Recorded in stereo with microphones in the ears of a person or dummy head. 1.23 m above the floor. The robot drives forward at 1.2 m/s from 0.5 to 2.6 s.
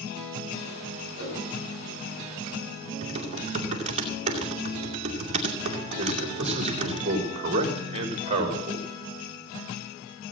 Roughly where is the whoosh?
Left.